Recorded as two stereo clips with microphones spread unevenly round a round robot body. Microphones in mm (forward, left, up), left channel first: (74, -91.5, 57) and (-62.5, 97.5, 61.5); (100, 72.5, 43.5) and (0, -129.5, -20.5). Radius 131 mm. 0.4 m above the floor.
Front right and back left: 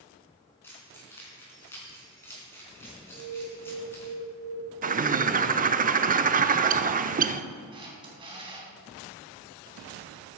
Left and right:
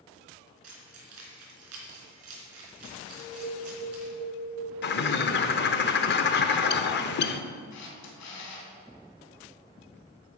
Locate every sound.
0.6 s keys jangling: 135° right, 3.5 m
3.1 s an alarm: 65° left, 4 m
4.8 s a bird: 100° left, 0.7 m
7.7 s a camera shutter: 55° left, 3.5 m